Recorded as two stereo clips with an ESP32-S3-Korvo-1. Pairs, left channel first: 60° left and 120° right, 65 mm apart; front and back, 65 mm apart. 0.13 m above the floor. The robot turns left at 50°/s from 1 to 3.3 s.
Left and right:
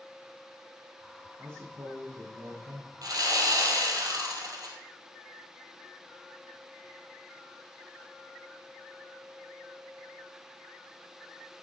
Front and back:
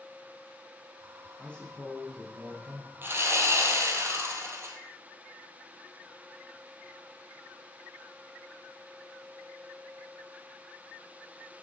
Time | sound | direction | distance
1.4 | a man speaking | 65° right | 6.5 m
3.0 | sawing | 125° right | 3 m